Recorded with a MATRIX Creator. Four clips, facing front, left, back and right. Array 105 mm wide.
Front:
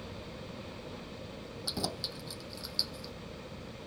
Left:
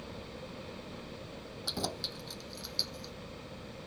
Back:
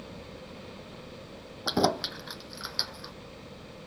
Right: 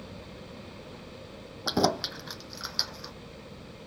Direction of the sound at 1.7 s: 135° right.